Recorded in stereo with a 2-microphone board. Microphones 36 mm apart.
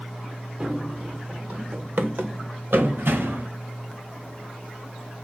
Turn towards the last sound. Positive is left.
turn(degrees=-90)